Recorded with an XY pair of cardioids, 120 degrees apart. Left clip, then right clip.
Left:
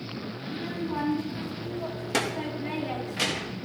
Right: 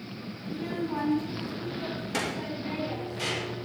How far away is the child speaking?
About 2.5 m.